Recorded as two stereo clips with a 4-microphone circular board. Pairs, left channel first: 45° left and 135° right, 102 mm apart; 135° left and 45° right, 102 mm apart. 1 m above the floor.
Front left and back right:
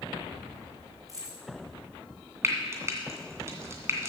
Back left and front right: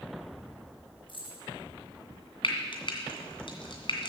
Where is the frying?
165° left, 2.5 m.